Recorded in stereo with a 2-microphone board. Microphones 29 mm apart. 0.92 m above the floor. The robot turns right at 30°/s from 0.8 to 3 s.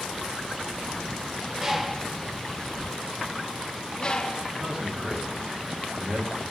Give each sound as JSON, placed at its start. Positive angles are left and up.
{"t": 1.6, "sound": "a bird", "side_deg": -15, "distance_m": 0.7}
{"t": 4.5, "sound": "a man speaking", "side_deg": -50, "distance_m": 2.5}